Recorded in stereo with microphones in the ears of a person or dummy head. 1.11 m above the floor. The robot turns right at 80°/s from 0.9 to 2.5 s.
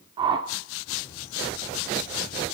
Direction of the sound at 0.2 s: 25° right (ahead or behind).